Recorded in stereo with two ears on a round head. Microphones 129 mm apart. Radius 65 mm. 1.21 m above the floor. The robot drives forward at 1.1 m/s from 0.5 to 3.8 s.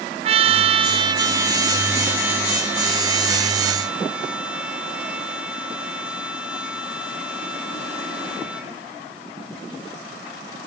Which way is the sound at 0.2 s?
40° right (ahead or behind).